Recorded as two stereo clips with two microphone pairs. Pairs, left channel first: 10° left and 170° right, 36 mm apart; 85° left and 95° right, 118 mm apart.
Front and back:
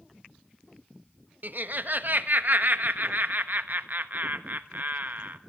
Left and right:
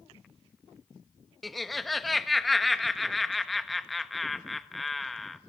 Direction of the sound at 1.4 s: 175° left.